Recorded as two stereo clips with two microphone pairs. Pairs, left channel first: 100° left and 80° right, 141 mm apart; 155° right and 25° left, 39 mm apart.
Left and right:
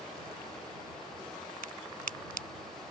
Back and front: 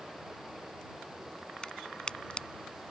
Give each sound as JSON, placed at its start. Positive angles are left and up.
{"t": 1.6, "sound": "a crack", "azimuth_deg": -95}